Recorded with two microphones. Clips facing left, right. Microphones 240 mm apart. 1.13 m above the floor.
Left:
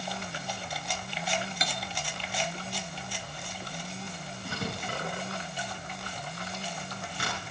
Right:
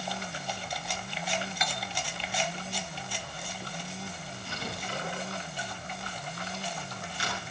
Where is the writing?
60° left (ahead or behind), 8 m.